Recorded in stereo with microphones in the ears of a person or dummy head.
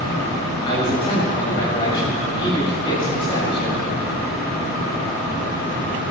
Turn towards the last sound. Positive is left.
turn(degrees=30)  # may be behind; listen again after turning